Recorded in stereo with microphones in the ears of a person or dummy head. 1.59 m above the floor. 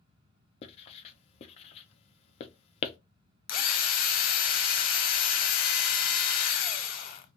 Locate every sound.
0.6 s writing: 40° left (ahead or behind), 0.6 m
3.5 s a drill: 50° left (ahead or behind), 0.6 m